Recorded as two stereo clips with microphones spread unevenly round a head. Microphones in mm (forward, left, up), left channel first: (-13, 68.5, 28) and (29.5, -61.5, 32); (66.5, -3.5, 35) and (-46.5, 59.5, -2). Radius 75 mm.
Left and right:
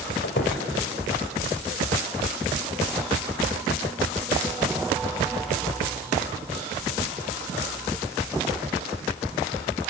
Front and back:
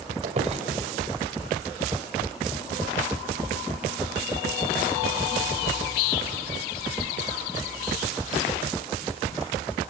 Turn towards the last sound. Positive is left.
turn(degrees=110)